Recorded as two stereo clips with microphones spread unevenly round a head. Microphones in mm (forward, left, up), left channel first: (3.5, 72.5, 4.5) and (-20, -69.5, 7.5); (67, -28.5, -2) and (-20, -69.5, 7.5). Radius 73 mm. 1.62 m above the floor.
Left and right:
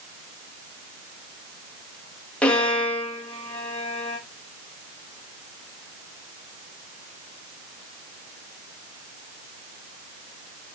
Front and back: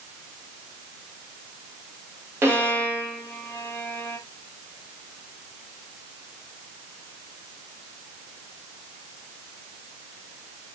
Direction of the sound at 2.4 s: 160° left.